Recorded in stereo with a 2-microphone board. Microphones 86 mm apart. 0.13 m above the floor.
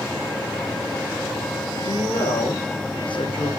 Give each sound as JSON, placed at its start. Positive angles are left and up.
{"t": 1.8, "sound": "a woman speaking", "side_deg": 65, "distance_m": 5.5}